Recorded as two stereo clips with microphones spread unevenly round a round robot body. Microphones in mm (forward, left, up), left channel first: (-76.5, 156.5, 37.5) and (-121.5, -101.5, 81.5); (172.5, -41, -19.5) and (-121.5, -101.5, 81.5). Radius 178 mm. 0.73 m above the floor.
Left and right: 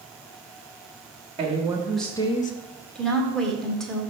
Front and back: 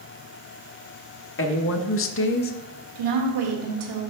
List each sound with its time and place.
1.4 s a woman speaking: 25° right, 1.0 m; by 2.5 s 45° left, 0.6 m
3.0 s a woman speaking: 165° left, 2 m